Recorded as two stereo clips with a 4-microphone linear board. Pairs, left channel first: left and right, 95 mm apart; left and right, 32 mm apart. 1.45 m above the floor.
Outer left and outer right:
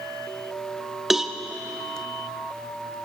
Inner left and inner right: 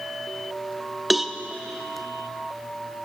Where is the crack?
I don't hear a crack.